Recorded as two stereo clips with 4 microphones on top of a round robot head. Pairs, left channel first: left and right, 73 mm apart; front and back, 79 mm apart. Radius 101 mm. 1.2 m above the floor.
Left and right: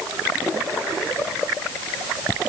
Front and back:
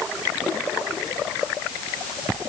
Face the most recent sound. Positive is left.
No sound to turn to.